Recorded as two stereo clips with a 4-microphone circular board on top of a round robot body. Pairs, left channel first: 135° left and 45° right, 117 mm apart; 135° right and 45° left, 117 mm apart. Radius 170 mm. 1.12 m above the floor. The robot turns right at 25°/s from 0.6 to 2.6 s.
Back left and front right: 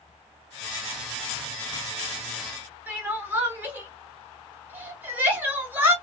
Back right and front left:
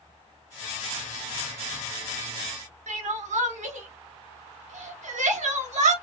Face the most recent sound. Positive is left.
turn(degrees=30)